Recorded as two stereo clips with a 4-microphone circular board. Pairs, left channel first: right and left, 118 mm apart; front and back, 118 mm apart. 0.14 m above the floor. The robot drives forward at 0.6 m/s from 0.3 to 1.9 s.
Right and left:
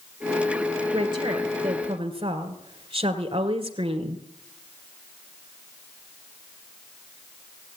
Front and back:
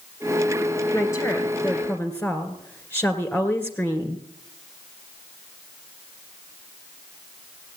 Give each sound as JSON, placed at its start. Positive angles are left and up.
{"t": 0.9, "sound": "a woman speaking", "azimuth_deg": 55, "distance_m": 2.5}